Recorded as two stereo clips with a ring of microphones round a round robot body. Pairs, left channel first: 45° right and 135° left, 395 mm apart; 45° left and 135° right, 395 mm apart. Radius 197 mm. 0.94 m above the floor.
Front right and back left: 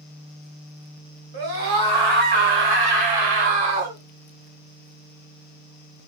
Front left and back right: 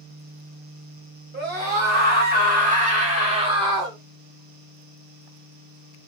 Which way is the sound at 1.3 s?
160° left.